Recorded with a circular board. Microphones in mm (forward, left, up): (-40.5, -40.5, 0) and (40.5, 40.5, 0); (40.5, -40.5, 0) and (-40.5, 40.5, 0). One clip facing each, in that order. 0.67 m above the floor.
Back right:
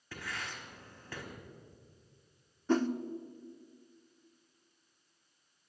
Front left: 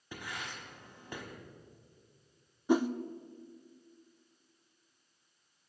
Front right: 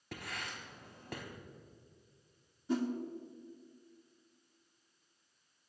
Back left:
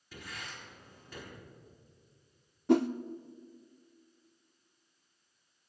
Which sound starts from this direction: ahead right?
Writing, at 0.1 s.